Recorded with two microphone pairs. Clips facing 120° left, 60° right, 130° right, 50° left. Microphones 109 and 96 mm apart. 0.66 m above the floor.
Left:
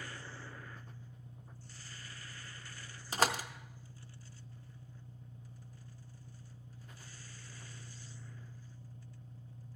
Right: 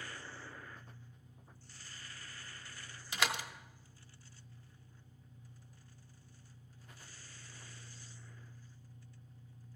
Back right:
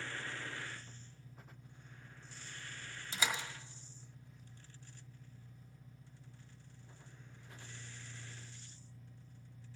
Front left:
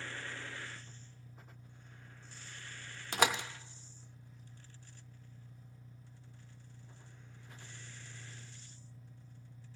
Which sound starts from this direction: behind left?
An engine running, at 0.0 s.